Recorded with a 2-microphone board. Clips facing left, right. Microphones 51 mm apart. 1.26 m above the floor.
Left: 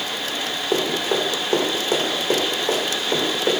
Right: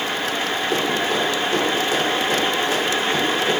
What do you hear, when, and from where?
0.7 s running footsteps: 25° left (ahead or behind), 2.5 m; by 3.6 s 45° left (ahead or behind), 3.5 m